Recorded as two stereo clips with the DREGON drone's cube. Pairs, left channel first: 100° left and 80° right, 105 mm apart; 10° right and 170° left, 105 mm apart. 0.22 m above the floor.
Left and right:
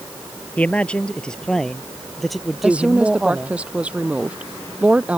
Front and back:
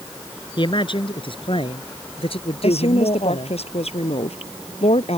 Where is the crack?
No crack in this recording.